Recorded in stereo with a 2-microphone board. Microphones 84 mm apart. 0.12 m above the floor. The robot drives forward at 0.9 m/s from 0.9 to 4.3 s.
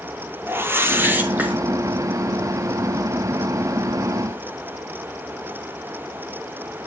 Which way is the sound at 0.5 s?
30° right (ahead or behind).